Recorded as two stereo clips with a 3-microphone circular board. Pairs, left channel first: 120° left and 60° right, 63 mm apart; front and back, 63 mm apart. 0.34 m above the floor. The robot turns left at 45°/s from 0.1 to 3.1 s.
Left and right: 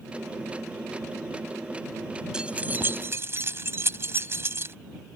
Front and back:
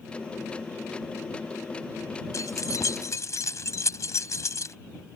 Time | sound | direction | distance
2.3 | keys jangling | 15° left | ?